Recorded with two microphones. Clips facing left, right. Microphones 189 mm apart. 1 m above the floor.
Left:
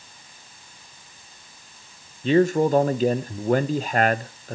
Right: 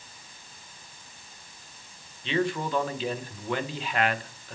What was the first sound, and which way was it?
A man speaking, 45° left (ahead or behind).